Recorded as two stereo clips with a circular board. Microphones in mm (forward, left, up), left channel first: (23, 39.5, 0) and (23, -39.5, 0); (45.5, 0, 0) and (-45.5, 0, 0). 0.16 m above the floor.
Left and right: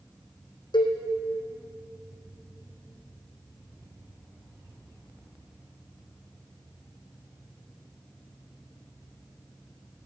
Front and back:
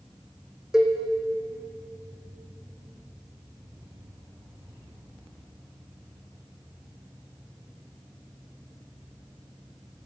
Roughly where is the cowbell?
Left.